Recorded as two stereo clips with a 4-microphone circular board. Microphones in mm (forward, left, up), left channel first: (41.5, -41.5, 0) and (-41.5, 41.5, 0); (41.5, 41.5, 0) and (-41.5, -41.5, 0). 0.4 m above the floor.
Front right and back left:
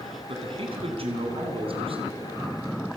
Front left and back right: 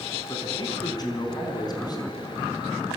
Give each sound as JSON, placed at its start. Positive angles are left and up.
{"t": 0.3, "sound": "a man speaking", "azimuth_deg": 100, "distance_m": 4.0}